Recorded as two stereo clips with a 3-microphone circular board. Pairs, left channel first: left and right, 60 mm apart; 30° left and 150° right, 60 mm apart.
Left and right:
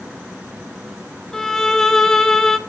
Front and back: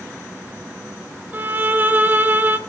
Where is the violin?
170° left, 1.3 m.